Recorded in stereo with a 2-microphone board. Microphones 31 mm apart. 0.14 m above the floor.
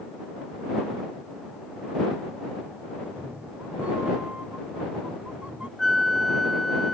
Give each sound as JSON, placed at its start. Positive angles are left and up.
{"t": 3.0, "sound": "a cat meowing", "side_deg": -55}
{"t": 5.8, "sound": "a flute", "side_deg": 0}